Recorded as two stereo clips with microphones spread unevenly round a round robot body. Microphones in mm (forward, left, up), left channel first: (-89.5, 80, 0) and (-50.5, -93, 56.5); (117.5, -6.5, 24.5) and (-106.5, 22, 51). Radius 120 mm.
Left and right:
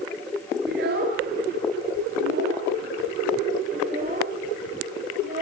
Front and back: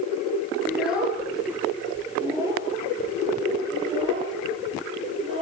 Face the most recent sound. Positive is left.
turn(degrees=-120)